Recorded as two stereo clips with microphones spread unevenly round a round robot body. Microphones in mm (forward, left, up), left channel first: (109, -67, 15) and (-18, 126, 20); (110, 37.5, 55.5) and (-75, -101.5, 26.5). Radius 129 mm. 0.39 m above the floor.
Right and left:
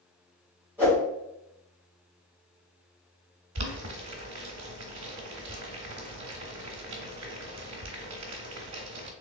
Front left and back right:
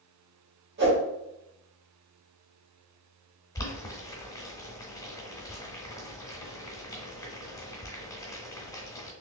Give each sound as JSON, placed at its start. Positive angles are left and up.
{"t": 0.8, "sound": "a whoosh", "azimuth_deg": -155, "distance_m": 2.0}
{"t": 3.5, "sound": "boiling", "azimuth_deg": 115, "distance_m": 1.0}